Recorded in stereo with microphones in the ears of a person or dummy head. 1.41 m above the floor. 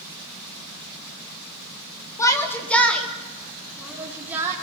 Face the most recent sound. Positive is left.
turn(degrees=-10)  # may be behind; listen again after turning